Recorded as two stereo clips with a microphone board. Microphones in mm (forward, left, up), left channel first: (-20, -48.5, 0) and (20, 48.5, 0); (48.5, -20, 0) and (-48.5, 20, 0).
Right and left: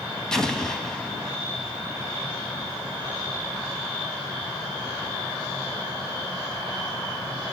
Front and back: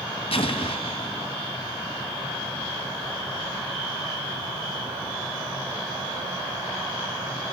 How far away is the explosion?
About 1.5 m.